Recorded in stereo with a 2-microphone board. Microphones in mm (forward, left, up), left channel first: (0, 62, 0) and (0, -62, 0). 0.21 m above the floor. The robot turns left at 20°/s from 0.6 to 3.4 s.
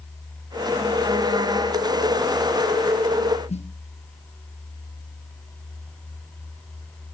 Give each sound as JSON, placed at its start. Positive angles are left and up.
{"t": 3.5, "sound": "a snare drum", "side_deg": 65, "distance_m": 1.8}